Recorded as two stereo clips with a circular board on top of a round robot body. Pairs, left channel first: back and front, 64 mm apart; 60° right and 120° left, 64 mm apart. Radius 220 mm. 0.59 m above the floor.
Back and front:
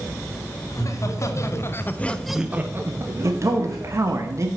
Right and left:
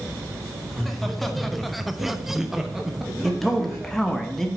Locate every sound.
0.7 s laughter: 145° right, 2.5 m; by 4.2 s 35° left, 3.5 m
3.2 s a man speaking: 25° left, 1.5 m